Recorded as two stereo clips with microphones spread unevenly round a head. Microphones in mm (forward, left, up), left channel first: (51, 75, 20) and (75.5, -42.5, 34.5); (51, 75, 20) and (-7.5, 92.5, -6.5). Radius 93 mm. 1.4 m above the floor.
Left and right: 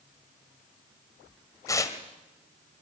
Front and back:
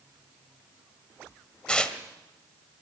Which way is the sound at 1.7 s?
40° left.